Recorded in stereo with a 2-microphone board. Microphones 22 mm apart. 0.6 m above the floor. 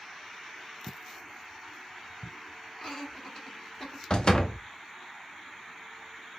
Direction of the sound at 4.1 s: 40° left (ahead or behind).